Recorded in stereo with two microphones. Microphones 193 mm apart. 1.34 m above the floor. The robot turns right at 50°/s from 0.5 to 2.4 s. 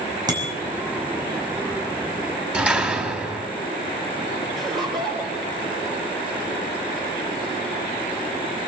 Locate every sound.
0.3 s a bicycle bell: 20° right (ahead or behind), 6 m; by 0.6 s 25° right (ahead or behind), 6 m
2.5 s a door slam: 5° right (ahead or behind), 3.5 m
4.5 s laughter: 25° right (ahead or behind), 3 m